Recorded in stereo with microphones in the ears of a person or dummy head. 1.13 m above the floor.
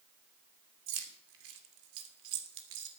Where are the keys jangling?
85° right, 2.5 m; by 2.9 s 75° right (ahead or behind), 3 m.